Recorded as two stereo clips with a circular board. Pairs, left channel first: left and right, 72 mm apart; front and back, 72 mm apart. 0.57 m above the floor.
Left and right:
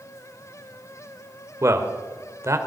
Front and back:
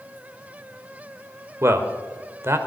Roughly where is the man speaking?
Behind right.